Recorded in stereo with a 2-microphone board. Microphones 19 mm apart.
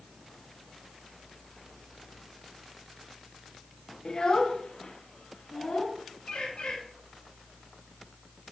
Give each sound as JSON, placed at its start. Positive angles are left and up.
{"t": 4.0, "sound": "a child speaking", "side_deg": 40, "distance_m": 0.8}
{"t": 6.3, "sound": "a bird", "side_deg": 80, "distance_m": 2.0}